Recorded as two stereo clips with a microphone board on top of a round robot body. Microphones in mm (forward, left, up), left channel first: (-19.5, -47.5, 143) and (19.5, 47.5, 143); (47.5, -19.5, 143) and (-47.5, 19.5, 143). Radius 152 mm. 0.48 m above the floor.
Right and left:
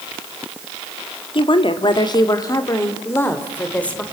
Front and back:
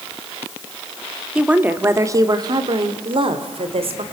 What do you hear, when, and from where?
1.4 s a woman speaking: 125° right, 2 m; by 4.0 s 170° left, 3.5 m